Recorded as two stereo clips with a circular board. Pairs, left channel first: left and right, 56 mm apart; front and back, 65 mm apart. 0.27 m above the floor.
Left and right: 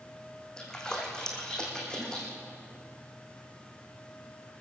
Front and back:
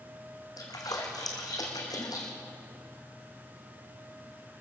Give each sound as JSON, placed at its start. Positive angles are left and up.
{"t": 0.6, "sound": "a splash", "azimuth_deg": 10, "distance_m": 4.0}